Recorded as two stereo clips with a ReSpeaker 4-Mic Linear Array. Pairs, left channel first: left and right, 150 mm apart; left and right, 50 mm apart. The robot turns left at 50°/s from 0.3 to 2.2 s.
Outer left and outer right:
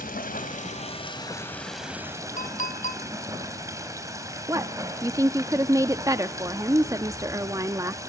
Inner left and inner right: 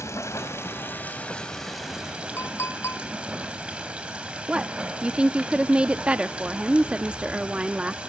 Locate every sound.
0.0 s running water: 75° left, 3.5 m; by 8.1 s 20° right, 3.5 m
2.4 s a clink: 55° left (ahead or behind), 1.9 m
4.5 s a woman speaking: 20° right (ahead or behind), 0.6 m